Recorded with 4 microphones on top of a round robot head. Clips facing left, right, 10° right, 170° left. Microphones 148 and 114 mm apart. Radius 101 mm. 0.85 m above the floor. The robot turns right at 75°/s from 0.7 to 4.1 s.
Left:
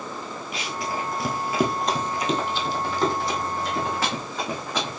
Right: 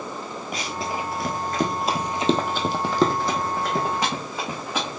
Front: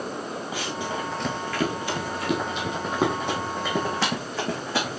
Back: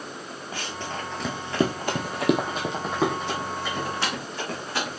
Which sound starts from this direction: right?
Running footsteps, at 0.5 s.